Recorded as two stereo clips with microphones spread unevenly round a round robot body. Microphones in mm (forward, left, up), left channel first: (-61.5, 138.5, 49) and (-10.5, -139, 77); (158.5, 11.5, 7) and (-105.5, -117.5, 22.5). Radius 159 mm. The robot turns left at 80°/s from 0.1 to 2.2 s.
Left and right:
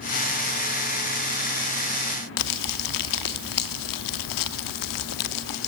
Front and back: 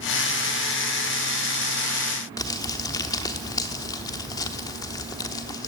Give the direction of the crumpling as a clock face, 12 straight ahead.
8 o'clock.